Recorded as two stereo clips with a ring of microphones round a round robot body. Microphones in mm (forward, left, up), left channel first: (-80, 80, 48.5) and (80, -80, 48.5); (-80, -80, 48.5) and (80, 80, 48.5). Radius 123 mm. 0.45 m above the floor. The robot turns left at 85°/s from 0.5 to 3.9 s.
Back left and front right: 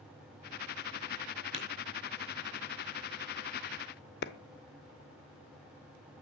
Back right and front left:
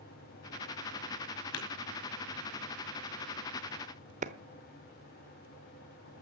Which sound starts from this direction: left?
A clap, at 4.2 s.